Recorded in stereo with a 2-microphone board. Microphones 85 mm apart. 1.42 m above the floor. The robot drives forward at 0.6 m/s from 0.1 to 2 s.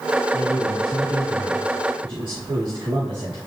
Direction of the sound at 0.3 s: 85° right.